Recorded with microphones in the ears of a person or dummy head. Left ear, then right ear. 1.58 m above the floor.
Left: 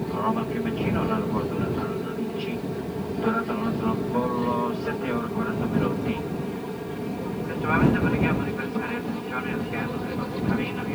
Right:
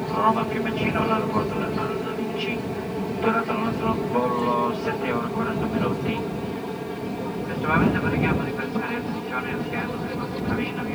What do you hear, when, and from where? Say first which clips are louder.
0.0 s an aircraft: right 5 dB; 35° right (ahead or behind); by 10.9 s 10° right (ahead or behind)